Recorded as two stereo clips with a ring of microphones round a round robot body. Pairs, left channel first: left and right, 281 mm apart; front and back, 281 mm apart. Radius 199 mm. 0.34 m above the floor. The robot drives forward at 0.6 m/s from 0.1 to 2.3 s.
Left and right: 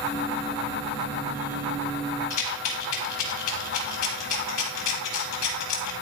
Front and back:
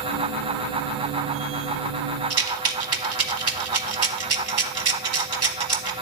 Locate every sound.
2.3 s a rattle: 140° left, 1.0 m